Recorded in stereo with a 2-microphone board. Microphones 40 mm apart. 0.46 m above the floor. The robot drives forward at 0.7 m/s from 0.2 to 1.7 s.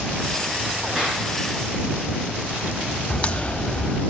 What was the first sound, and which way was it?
A clap, 10° right (ahead or behind).